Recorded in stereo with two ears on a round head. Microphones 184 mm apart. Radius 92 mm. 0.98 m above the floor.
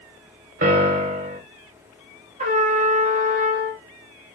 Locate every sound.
0.6 s a piano: 40° right (ahead or behind), 0.7 m
2.4 s a trumpet: 35° right (ahead or behind), 1.3 m